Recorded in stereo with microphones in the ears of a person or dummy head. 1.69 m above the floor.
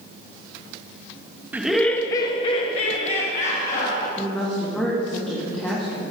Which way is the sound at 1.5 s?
10° right (ahead or behind).